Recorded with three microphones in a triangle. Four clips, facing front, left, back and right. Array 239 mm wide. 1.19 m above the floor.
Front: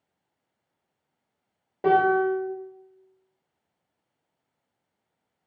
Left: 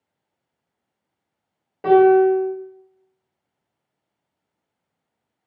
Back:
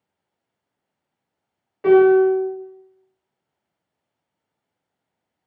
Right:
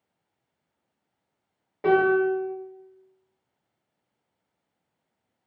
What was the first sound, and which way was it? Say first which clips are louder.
A piano: left 8 dB, back 8 dB; 10° left.